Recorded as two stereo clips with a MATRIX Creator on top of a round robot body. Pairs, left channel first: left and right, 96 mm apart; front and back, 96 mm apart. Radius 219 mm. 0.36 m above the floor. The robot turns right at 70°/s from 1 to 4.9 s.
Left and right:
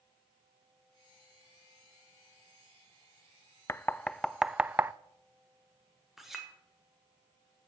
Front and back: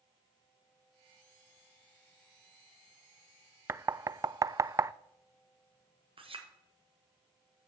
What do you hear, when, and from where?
3.7 s knocking: 135° left, 0.5 m; by 4.9 s 140° right, 0.5 m
6.2 s a clink: straight behind, 1.8 m